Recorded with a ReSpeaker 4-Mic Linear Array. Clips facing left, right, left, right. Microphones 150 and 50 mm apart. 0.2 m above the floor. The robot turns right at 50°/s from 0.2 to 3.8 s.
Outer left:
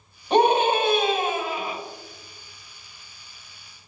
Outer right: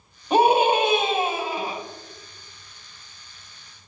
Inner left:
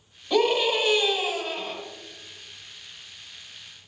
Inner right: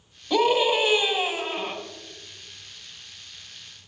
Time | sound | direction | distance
0.3 | a scream | 175° right | 1.5 m